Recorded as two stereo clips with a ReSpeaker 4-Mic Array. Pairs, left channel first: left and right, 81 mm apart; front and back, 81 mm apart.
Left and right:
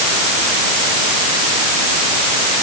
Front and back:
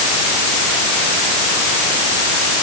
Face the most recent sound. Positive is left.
No sound to turn to.